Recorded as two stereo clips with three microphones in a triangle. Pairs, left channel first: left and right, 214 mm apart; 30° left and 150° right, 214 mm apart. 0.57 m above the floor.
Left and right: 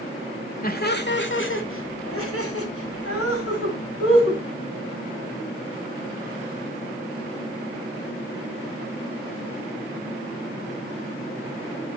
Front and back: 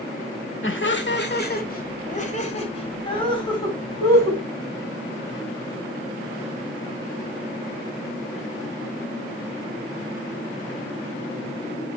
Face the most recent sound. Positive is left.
turn(degrees=105)